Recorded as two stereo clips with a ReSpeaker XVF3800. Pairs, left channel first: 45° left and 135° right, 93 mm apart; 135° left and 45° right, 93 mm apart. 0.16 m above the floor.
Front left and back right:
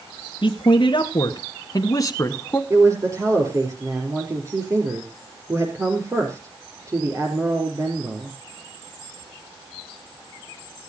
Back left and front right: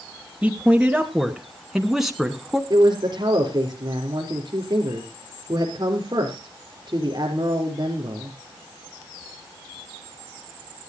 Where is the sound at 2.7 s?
80° right, 4 m.